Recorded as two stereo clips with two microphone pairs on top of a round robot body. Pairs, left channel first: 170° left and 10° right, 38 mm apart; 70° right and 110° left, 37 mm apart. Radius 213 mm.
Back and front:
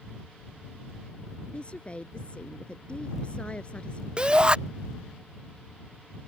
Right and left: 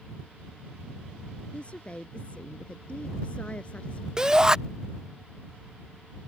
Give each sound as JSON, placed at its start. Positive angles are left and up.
{"t": 1.5, "sound": "a woman speaking", "azimuth_deg": -130}
{"t": 4.2, "sound": "a shout", "azimuth_deg": 45}